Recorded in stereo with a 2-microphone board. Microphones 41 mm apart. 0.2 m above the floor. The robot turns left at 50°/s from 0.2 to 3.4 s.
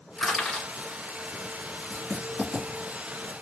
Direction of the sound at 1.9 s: Centre (ahead or behind).